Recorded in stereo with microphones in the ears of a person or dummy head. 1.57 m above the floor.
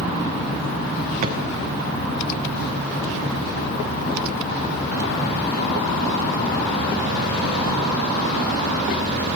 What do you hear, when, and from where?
1.2 s a drawer: 40° right (ahead or behind), 2.5 m